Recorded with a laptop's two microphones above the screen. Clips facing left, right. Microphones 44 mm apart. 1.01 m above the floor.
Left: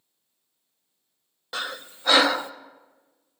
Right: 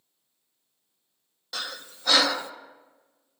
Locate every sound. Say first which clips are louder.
1.5 s breathing: left 4 dB; 25° left (ahead or behind), 0.5 m